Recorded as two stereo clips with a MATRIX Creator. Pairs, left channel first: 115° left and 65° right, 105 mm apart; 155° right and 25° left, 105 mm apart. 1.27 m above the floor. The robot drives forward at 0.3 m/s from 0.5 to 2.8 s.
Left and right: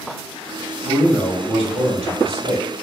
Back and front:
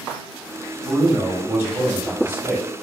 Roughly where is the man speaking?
Ahead right.